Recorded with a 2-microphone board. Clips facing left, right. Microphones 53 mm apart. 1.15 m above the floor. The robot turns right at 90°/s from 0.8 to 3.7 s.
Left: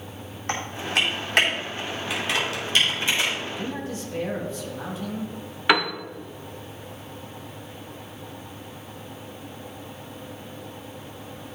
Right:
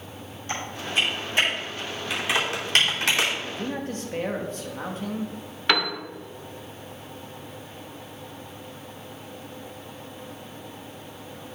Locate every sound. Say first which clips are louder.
0.5 s typing on a keyboard: left 2 dB; 55° left (ahead or behind), 3 m; by 3.3 s 80° right, 3 m
3.4 s a man speaking: even; 15° right (ahead or behind), 2 m; by 5.3 s 45° right (ahead or behind), 2 m
5.7 s a piano: left 3 dB; 15° left (ahead or behind), 0.9 m